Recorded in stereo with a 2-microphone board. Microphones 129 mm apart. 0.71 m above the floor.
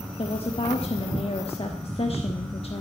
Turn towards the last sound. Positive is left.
turn(degrees=50)  # may be behind; listen again after turning